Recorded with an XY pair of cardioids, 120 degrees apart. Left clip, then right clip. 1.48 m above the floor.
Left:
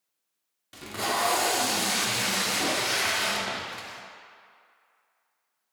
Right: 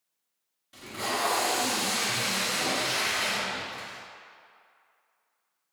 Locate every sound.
0.7 s tape being pulled: 45° left, 0.8 m